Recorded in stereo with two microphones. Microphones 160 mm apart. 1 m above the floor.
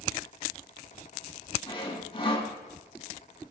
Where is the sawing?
35° left (ahead or behind), 3 m.